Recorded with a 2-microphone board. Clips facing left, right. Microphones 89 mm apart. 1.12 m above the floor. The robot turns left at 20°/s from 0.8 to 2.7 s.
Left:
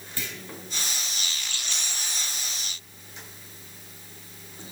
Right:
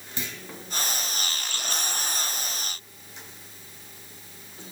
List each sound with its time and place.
0.2 s a clunk: 20° right (ahead or behind), 2.5 m